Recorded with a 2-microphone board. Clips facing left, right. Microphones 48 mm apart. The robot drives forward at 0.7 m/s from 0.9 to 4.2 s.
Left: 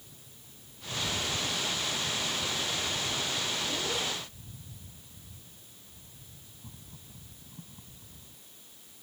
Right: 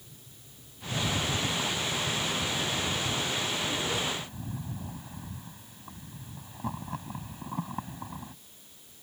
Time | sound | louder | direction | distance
0.8 | a rattle | right 3 dB | 85° right | ?